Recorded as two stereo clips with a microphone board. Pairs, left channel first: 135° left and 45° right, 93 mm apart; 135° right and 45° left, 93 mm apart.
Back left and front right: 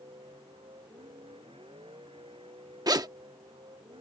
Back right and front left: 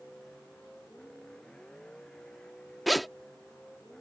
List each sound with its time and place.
0.0 s a vehicle: 55° right
2.9 s a zipper: 45° right